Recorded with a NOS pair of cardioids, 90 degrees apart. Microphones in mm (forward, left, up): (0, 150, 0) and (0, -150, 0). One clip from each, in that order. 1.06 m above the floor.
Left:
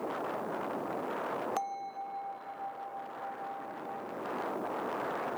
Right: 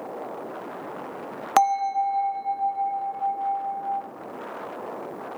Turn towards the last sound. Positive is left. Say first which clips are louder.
# right 16 dB
turn(degrees=-65)